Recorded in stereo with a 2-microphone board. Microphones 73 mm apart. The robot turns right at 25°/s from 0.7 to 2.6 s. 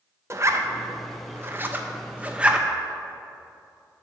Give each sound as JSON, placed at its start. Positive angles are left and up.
{"t": 0.3, "sound": "a zipper", "side_deg": -40, "distance_m": 0.6}